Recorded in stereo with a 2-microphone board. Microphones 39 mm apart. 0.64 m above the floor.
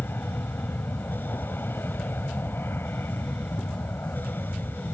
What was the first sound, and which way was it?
An aircraft, 65° left (ahead or behind).